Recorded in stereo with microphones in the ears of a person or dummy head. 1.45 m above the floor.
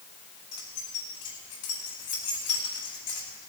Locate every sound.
0.5 s keys jangling: 25° left (ahead or behind), 4 m